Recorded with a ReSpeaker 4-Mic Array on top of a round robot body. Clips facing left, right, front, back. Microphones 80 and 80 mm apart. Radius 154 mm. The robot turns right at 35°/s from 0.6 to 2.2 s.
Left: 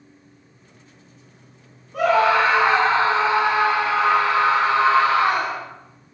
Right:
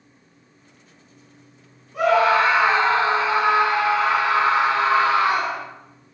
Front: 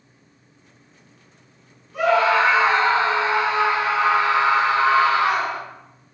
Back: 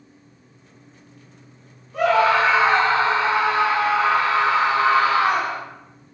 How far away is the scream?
About 4 m.